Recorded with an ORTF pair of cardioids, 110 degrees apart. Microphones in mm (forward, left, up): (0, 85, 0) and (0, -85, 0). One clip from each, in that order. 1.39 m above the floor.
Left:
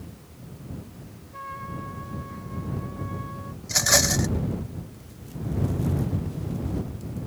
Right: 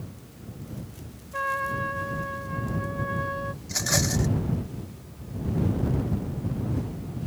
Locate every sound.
1.3 s a trumpet: 50° right
3.6 s a rattle: 40° left